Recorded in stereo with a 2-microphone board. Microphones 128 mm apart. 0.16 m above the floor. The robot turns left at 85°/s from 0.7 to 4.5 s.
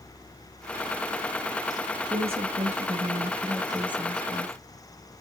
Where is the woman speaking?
35° right, 2.5 m; by 4.5 s 115° left, 2.5 m.